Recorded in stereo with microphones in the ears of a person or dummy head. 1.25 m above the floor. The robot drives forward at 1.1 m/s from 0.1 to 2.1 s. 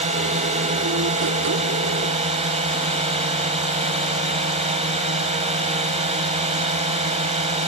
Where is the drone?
40° right (ahead or behind); by 7.7 s 35° right (ahead or behind).